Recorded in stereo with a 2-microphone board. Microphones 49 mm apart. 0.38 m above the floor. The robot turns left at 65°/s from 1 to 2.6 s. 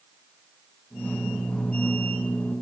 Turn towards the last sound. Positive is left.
No sound to turn to.